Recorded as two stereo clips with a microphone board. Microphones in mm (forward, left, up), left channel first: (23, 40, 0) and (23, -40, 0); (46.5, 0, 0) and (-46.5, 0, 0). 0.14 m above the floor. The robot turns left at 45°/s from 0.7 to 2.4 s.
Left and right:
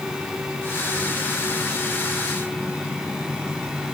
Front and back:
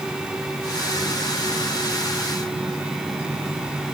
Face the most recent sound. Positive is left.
No sound to turn to.